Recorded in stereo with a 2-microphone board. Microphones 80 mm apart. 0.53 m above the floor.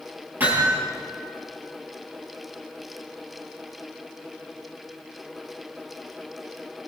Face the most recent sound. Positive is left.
turn(degrees=-25)  # may be behind; listen again after turning